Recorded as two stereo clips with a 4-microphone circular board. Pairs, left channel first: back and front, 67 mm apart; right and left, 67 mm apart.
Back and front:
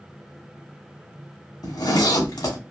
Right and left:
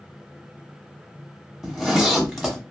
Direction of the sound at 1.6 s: Straight behind.